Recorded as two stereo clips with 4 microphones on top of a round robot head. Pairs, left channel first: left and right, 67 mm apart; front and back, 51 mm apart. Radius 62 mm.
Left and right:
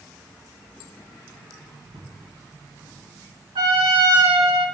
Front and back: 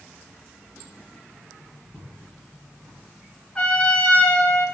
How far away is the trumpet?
About 3.5 m.